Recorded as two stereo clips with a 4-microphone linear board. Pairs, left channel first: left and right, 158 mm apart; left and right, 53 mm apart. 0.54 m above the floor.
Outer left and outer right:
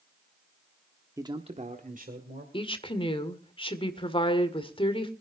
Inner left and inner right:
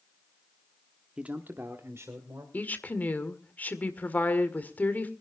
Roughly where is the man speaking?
Centre.